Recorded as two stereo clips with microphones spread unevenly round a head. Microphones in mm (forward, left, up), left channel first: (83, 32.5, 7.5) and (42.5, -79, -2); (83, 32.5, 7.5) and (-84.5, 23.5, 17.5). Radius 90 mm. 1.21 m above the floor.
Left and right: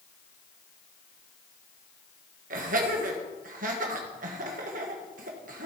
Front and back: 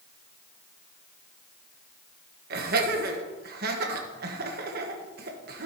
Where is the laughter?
135° right, 1.4 m.